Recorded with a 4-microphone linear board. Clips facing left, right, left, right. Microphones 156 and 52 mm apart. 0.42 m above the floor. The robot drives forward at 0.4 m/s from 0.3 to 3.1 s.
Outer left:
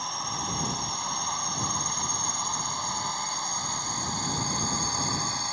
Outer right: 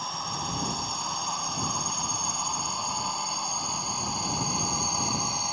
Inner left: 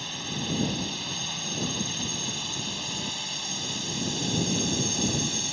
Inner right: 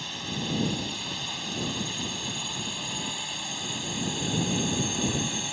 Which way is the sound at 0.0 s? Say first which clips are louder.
Even, even; 5° right (ahead or behind).